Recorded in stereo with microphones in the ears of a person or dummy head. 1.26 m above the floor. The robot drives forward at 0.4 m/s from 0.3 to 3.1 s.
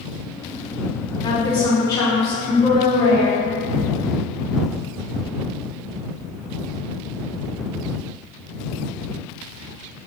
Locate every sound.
1.2 s a woman speaking: 20° left (ahead or behind), 0.8 m; by 3.5 s 10° left (ahead or behind), 1.5 m